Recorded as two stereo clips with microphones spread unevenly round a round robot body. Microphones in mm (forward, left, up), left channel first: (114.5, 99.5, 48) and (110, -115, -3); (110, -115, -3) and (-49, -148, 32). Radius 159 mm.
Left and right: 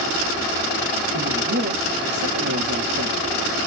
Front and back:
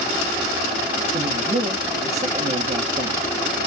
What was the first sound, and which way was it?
A man speaking, 120° right.